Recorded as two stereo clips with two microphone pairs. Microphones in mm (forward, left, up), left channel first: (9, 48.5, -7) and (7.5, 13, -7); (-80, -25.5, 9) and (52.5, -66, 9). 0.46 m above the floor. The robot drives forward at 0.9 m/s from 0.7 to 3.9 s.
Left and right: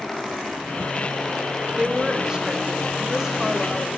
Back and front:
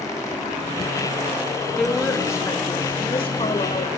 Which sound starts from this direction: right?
A woman speaking, at 1.8 s.